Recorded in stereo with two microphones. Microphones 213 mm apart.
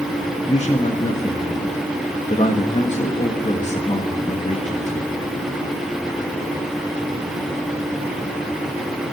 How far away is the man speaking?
About 1.4 m.